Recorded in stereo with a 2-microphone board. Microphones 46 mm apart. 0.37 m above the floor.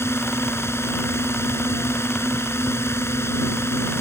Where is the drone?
70° left (ahead or behind).